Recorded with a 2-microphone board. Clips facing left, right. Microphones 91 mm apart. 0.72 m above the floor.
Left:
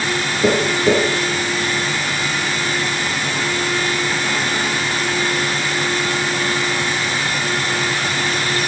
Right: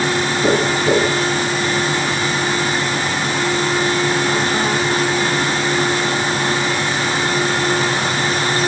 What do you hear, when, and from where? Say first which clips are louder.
0.4 s tapping: left 1 dB; 30° left (ahead or behind), 6.5 m